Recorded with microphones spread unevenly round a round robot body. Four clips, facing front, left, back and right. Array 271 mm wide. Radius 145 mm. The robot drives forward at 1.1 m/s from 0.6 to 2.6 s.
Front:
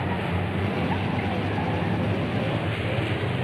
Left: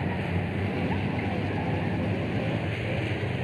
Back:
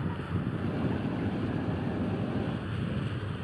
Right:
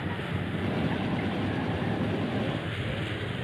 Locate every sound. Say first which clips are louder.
0.0 s a vehicle: left 3 dB, front 7 dB; 10° left